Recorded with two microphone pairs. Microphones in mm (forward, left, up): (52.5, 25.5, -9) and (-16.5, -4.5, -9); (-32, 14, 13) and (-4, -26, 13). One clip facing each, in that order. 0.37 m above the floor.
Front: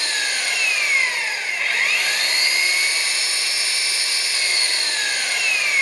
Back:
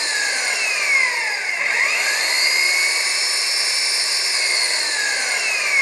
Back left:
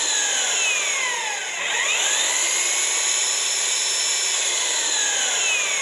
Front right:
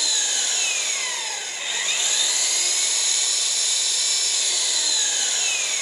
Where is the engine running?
150° left, 1.2 m.